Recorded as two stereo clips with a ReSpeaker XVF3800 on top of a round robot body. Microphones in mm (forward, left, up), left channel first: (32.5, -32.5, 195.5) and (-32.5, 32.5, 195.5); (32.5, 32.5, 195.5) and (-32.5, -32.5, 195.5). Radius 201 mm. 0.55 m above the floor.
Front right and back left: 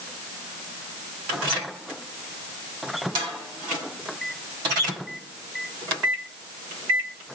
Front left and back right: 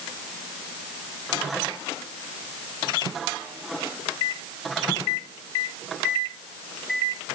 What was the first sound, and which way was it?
Only background noise.